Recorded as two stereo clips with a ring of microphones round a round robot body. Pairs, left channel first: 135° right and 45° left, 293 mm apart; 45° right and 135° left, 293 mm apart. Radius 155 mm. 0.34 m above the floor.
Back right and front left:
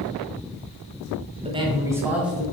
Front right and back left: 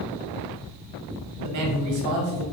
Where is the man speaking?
115° left, 1.7 m; by 2.4 s 135° left, 2.5 m.